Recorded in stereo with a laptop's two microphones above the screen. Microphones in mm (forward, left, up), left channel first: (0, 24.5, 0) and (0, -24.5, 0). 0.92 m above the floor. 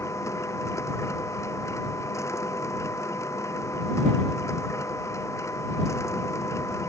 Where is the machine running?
85° left.